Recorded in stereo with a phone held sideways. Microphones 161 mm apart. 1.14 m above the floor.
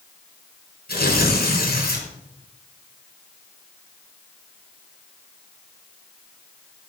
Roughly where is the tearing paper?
Left.